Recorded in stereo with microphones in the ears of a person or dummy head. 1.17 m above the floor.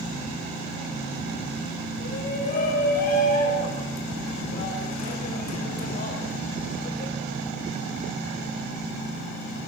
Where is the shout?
55° left (ahead or behind), 5 m.